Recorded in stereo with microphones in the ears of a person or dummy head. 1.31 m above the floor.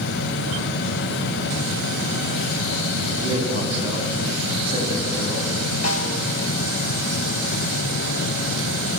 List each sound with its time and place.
3.2 s a man speaking: 35° right (ahead or behind), 9 m
5.8 s a snare drum: 50° left (ahead or behind), 4.5 m